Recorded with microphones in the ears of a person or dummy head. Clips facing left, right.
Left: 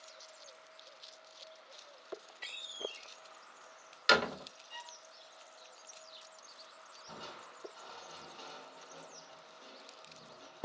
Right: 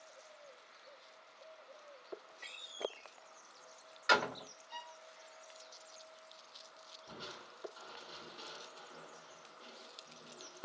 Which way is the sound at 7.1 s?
35° right (ahead or behind).